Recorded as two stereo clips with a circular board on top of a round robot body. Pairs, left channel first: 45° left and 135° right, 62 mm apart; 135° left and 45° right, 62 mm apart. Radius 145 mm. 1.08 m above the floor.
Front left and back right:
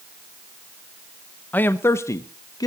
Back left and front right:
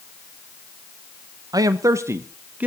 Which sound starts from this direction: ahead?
A man speaking, at 1.5 s.